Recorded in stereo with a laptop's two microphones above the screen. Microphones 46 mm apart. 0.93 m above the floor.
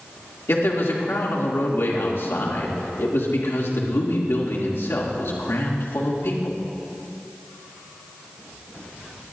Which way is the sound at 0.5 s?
65° left (ahead or behind).